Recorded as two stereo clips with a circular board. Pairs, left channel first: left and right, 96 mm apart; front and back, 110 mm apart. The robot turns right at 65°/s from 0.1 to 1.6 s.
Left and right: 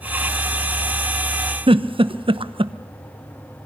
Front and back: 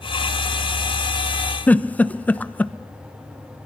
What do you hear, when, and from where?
1.7 s a giggle: 75° right, 0.9 m